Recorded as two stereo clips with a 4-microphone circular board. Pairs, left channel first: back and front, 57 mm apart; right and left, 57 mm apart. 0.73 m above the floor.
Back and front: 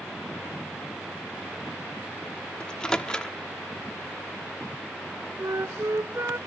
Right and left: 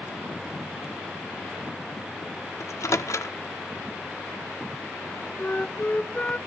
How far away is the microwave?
About 1.2 m.